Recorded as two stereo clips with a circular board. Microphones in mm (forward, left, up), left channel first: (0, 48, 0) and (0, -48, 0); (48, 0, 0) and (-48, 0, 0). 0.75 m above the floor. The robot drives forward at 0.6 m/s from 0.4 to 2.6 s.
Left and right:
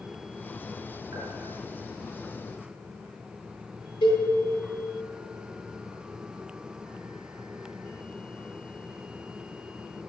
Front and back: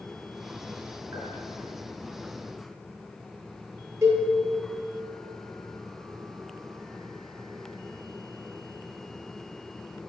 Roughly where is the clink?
Behind right.